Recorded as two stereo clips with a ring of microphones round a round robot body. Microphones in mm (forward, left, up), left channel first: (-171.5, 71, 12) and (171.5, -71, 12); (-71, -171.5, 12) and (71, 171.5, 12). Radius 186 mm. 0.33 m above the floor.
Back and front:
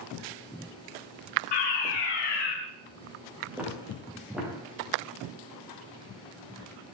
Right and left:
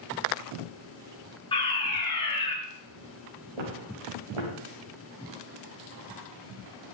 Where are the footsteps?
65° left, 6.5 m.